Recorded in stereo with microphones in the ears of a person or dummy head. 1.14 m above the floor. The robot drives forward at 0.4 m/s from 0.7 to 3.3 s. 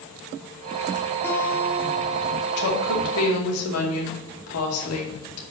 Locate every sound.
1.2 s a guitar: 15° left (ahead or behind), 1.7 m; by 2.6 s 20° left (ahead or behind), 1.1 m
2.6 s a woman speaking: 85° left, 2.5 m